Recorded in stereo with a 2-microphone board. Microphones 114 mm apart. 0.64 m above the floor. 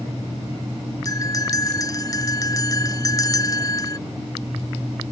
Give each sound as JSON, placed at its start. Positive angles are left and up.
{"t": 1.1, "sound": "a bell", "side_deg": 30}